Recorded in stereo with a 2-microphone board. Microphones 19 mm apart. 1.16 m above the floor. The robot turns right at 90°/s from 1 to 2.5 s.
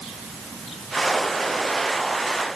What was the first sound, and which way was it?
Only background noise.